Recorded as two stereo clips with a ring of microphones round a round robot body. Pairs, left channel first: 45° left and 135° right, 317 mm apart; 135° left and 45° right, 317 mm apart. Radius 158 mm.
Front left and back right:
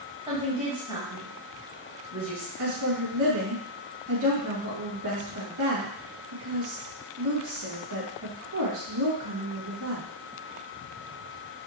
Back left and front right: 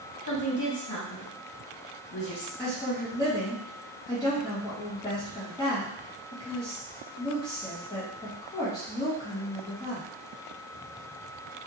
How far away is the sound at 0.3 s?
About 1.8 m.